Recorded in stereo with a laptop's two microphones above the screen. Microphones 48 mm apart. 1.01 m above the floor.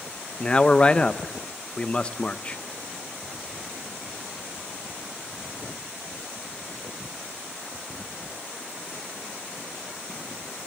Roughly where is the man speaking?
Left.